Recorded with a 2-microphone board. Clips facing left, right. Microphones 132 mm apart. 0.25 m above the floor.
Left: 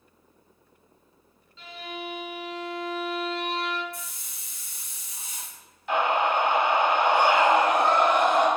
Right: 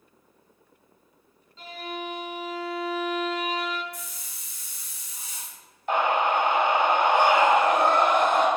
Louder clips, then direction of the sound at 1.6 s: Right 2 dB; 40° right (ahead or behind).